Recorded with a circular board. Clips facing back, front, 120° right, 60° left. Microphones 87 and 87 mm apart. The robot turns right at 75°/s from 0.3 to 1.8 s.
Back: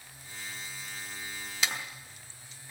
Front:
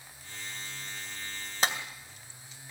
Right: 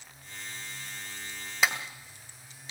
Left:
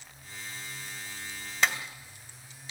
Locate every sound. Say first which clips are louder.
1.6 s a clap: front 4 dB, even; 40° right, 2 m; by 1.8 s 30° right, 2 m